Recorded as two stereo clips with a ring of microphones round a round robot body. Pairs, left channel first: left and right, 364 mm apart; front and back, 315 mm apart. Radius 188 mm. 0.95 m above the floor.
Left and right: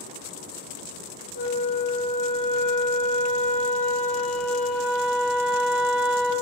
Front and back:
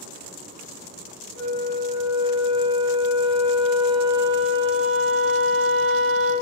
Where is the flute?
55° right, 1.6 m.